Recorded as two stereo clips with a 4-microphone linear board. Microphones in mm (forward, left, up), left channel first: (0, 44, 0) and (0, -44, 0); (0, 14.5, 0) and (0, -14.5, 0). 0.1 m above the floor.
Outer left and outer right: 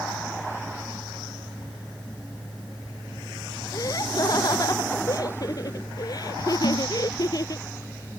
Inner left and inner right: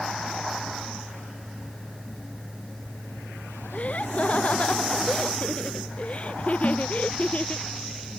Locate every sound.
3.7 s laughter: 45° left (ahead or behind)
6.6 s a snare drum: 80° left